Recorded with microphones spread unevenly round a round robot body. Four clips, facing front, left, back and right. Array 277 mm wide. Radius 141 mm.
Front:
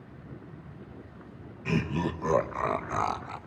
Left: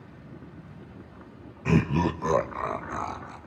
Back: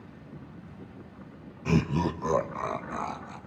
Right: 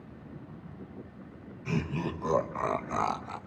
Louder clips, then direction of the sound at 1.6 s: Left 9 dB, back 3 dB; 115° left.